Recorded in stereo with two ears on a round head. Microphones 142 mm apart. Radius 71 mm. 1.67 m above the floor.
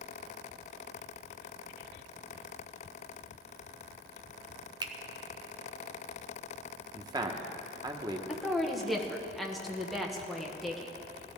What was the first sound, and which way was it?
A finger snap, 25° right (ahead or behind).